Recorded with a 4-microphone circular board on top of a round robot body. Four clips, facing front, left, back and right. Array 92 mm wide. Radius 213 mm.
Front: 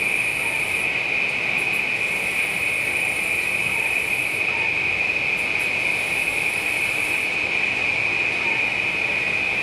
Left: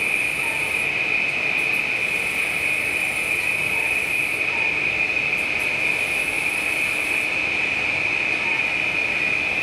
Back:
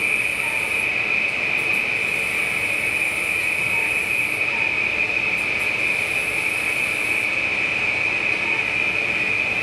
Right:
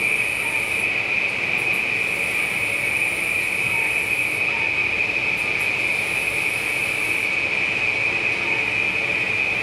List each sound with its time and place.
0.0 s an insect: 150° right, 1.4 m